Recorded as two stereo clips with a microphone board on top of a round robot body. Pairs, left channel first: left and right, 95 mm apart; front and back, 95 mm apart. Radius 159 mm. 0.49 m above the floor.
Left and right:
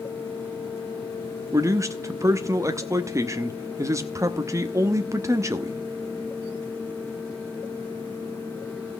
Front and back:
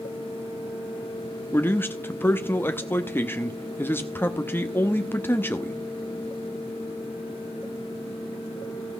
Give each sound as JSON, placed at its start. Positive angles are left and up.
{"t": 1.5, "sound": "a man speaking", "azimuth_deg": -55, "distance_m": 1.1}